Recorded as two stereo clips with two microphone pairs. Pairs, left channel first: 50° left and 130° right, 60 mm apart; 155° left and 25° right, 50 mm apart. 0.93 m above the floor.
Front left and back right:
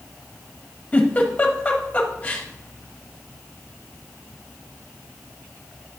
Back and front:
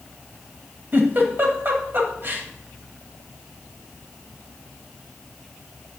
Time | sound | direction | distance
0.9 | a giggle | 5° right | 1.0 m